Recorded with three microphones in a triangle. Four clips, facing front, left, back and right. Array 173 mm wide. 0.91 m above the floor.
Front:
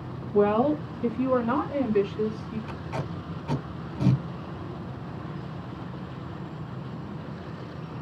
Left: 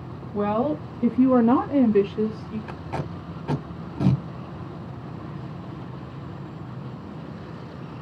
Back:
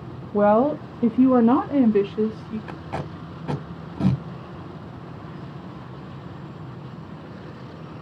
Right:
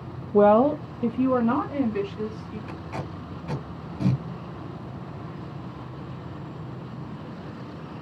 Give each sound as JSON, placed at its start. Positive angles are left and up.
{"t": 0.3, "sound": "a woman speaking", "azimuth_deg": -120, "distance_m": 0.5}
{"t": 2.7, "sound": "tape being pulled", "azimuth_deg": 150, "distance_m": 1.3}